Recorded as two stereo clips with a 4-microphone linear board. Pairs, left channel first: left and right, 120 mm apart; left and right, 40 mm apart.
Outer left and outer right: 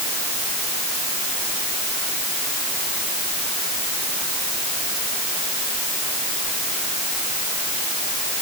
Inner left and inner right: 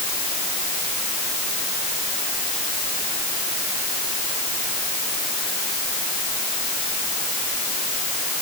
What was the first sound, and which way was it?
Only background noise.